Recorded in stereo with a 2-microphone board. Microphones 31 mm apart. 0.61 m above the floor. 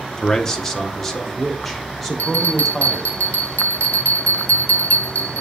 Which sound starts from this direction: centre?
A man speaking, at 0.2 s.